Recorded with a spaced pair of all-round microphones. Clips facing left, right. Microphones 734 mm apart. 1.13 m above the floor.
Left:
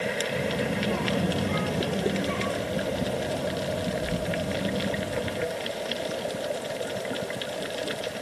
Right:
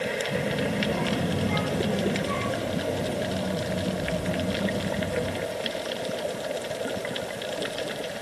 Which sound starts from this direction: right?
A child speaking, at 0.3 s.